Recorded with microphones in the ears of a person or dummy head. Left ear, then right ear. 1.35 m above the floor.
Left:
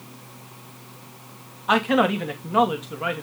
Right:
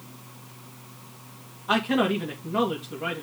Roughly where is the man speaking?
Left.